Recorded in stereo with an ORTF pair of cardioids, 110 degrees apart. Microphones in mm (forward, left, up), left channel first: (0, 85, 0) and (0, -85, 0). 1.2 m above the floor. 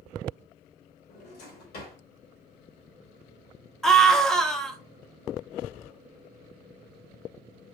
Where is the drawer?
65° left, 2 m.